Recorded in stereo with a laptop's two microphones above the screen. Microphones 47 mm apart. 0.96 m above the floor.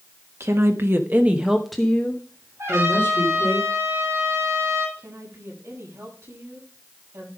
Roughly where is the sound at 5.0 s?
Right.